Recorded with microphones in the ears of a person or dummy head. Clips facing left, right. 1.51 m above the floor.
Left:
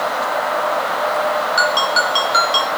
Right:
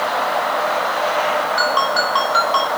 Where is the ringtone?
35° left (ahead or behind), 4 m.